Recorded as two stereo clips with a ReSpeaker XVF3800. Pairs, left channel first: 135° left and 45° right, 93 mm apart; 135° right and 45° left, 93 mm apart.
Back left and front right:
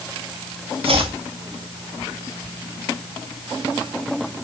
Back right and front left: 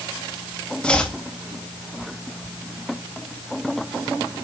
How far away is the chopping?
About 2.5 m.